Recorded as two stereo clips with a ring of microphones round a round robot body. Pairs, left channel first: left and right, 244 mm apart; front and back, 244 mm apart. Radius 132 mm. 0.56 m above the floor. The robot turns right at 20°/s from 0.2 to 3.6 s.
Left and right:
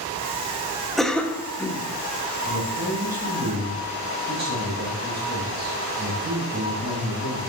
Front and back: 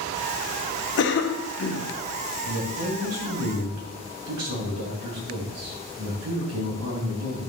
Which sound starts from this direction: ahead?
A cough, at 1.0 s.